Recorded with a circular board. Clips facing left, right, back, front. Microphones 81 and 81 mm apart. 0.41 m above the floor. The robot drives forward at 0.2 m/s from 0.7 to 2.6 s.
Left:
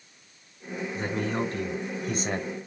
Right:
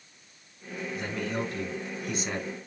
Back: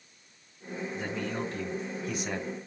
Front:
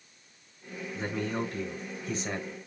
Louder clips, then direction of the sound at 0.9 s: Left 3 dB, front 3 dB; 70° left.